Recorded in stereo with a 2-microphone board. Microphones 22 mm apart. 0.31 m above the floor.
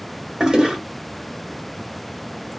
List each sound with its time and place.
0.4 s a toilet flushing: 40° right (ahead or behind), 0.9 m